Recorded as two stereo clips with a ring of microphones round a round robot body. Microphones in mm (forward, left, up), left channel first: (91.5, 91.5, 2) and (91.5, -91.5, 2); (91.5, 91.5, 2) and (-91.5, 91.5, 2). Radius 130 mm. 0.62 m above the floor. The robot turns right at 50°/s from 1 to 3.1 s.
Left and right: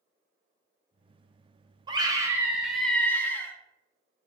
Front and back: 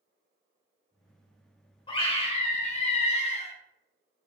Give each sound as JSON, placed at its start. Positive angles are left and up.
{"t": 1.9, "sound": "a scream", "azimuth_deg": -45, "distance_m": 0.6}